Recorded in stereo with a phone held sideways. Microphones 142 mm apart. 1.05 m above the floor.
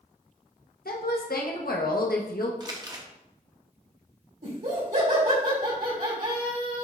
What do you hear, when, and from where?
0.8 s a woman speaking: 80° left, 0.9 m
2.6 s crumpling: 25° right (ahead or behind), 0.8 m
4.4 s laughter: 60° right (ahead or behind), 2.5 m